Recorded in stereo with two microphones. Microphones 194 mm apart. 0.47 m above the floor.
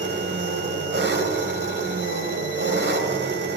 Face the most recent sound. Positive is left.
turn(degrees=-65)  # may be behind; listen again after turning